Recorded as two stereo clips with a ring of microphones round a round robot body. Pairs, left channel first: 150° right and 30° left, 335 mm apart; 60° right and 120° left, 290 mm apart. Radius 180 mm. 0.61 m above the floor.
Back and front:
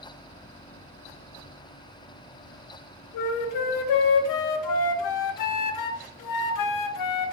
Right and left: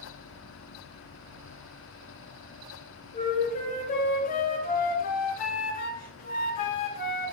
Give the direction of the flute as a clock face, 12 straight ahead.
4 o'clock.